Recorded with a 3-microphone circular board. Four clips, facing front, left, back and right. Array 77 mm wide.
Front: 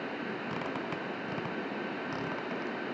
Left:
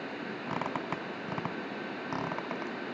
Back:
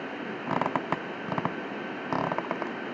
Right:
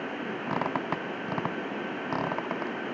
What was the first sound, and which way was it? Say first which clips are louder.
A squeak: right 5 dB, back 12 dB; 160° right.